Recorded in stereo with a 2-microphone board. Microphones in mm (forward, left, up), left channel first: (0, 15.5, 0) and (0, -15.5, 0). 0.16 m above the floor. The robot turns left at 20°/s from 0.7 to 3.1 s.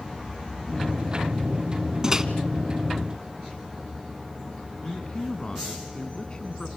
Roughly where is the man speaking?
Left.